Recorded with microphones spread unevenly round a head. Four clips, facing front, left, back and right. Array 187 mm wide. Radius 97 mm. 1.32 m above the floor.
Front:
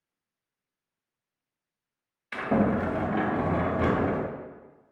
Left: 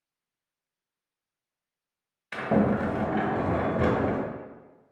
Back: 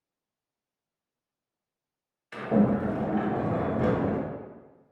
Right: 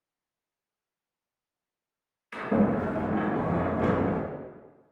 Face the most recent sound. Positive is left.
turn(degrees=80)